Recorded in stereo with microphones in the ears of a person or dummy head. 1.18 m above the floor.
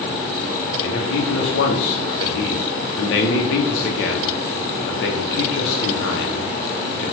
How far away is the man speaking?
About 0.6 m.